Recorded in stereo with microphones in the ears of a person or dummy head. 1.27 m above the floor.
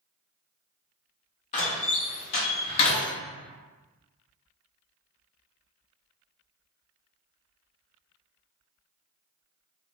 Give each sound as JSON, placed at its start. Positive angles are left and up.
{"t": 1.5, "sound": "a door slam", "side_deg": 35, "distance_m": 0.9}